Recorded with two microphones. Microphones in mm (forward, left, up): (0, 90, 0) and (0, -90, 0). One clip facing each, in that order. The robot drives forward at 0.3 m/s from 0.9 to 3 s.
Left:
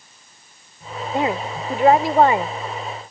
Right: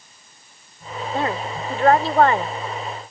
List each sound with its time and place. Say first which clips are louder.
1.1 s a woman speaking: left 3 dB; 15° left (ahead or behind)